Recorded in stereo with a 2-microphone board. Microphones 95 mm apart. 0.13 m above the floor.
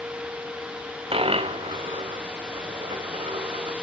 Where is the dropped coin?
85° right, 0.8 m.